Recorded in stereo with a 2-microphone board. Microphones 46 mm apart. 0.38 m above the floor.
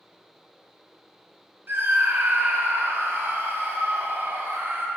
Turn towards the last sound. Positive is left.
turn(degrees=-55)  # may be behind; listen again after turning